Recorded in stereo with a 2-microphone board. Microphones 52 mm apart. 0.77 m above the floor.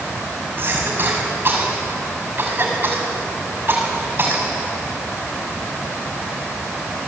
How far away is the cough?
About 7 m.